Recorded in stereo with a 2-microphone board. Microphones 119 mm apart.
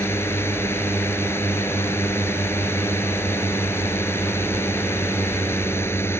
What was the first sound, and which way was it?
A drone, 20° left (ahead or behind).